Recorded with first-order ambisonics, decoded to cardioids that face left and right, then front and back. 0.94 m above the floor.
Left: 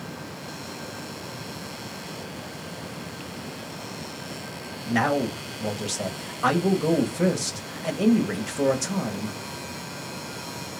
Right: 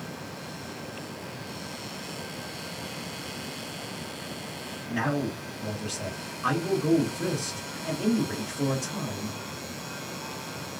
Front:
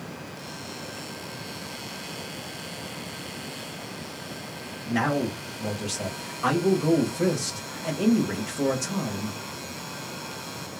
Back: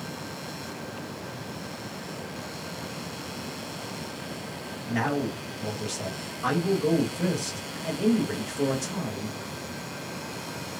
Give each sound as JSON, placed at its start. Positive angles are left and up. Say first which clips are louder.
{"t": 4.9, "sound": "a man speaking", "louder": "left 6 dB, front 2 dB", "azimuth_deg": 75, "distance_m": 1.2}